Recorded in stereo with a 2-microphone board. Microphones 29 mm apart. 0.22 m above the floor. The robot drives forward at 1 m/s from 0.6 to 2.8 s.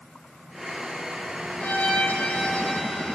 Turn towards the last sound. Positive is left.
turn(degrees=45)  # may be behind; listen again after turning